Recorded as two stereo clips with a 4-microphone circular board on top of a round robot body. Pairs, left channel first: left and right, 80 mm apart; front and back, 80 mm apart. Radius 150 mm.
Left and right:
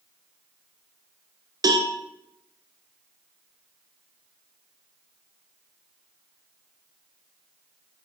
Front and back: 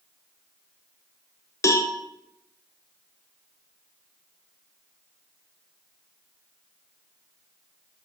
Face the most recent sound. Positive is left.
turn(degrees=-50)